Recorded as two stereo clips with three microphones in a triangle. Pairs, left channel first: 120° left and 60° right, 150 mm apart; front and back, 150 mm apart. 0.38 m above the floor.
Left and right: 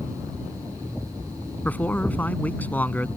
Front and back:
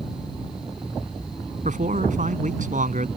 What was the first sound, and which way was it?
A man speaking, 160° right.